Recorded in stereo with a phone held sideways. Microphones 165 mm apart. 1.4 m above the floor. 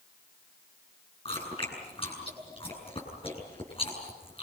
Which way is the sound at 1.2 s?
35° left (ahead or behind).